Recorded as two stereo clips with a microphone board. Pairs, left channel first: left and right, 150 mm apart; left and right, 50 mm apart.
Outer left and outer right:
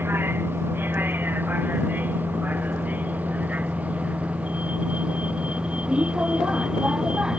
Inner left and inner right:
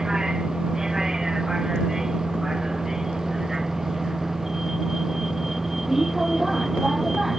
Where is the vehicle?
15° right (ahead or behind); by 7.4 s 5° right (ahead or behind).